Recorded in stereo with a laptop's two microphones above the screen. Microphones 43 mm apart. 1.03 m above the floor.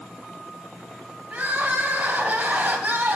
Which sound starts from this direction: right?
Crying, at 1.3 s.